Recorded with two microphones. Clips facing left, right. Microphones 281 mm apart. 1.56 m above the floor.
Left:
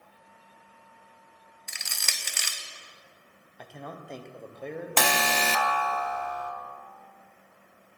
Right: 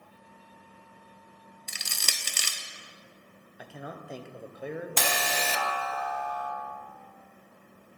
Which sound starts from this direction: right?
Crushing, at 1.7 s.